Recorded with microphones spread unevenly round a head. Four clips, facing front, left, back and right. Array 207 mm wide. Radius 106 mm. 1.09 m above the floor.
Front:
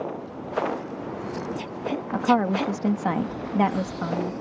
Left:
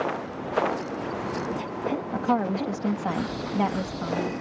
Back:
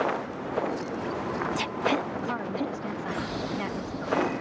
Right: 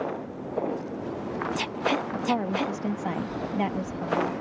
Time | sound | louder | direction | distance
2.1 | a woman speaking | left 2 dB, front 9 dB | 10° left | ?